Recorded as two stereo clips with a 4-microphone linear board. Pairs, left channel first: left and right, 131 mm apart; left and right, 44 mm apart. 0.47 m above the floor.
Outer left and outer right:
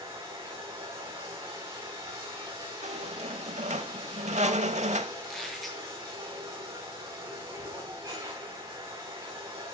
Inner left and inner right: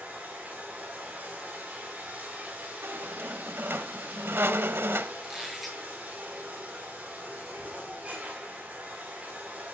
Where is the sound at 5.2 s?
Centre (ahead or behind), 6 m.